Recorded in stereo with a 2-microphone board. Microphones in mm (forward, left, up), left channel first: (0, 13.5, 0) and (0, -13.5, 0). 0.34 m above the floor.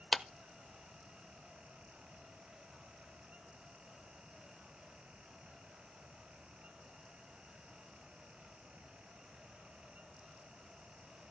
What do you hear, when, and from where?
0.1 s a clap: 5° left (ahead or behind), 0.6 m